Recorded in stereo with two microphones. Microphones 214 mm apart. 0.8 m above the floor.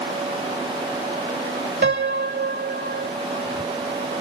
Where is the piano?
55° right (ahead or behind).